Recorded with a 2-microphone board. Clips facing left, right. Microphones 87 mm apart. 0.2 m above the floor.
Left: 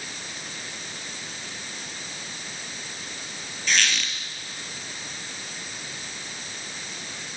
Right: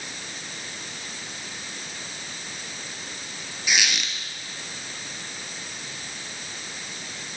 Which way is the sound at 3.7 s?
10° right (ahead or behind).